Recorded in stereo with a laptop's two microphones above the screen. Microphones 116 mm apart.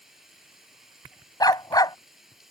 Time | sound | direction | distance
0.0 | running water | centre (ahead or behind) | ?
1.4 | a dog barking | 35° left (ahead or behind) | ?